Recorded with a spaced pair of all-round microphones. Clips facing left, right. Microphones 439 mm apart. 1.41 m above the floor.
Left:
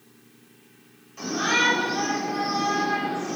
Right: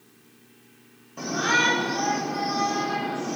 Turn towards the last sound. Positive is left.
turn(degrees=-65)  # may be behind; listen again after turning